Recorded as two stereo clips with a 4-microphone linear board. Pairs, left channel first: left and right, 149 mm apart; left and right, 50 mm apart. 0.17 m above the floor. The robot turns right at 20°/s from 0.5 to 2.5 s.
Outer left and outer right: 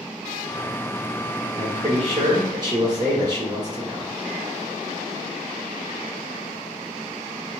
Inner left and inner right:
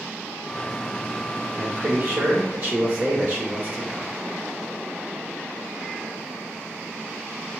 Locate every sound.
1.6 s a man speaking: 40° right (ahead or behind), 1.9 m; by 4.1 s 30° right (ahead or behind), 1.9 m